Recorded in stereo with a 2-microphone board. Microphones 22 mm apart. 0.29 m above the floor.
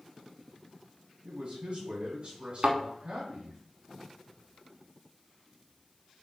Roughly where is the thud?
Right.